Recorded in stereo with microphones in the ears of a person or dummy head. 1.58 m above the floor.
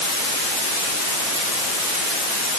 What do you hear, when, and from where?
Only background noise.